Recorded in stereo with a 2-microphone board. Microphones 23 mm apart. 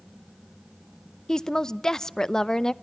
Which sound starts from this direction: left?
A woman speaking, at 1.3 s.